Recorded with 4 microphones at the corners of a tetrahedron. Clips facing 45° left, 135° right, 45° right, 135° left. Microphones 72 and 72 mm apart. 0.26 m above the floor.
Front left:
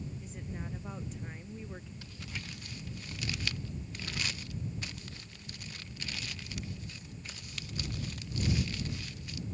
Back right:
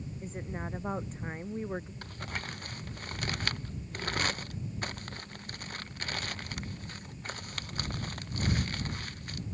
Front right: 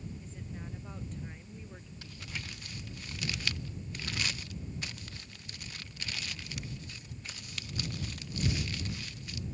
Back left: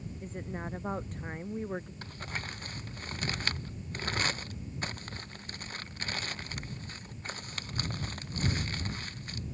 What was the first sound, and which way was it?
A woman speaking, 175° left.